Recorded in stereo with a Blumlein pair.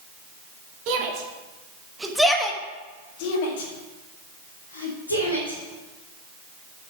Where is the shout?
45° right, 2.5 m; by 5.6 s 80° left, 4 m.